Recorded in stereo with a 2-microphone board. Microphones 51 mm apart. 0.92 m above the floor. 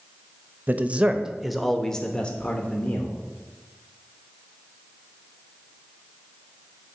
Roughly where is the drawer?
I don't hear a drawer.